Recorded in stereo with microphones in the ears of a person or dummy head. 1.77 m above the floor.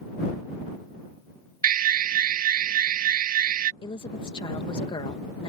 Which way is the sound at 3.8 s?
30° left (ahead or behind).